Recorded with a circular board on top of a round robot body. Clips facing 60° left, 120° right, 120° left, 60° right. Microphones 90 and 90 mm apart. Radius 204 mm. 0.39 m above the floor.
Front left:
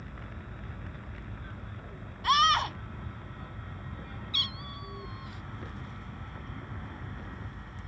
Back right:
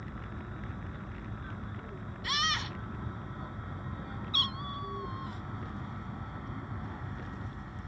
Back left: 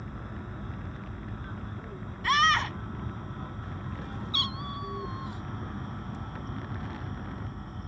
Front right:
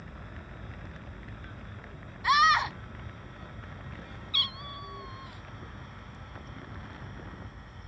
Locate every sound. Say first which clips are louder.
0.0 s an aircraft: back right 2 dB, back left 6 dB; 175° left; by 7.9 s 165° left
2.2 s a scream: front left 10 dB, front right 2 dB; 20° left
4.3 s a cat meowing: back right 6 dB, back left 3 dB; 175° right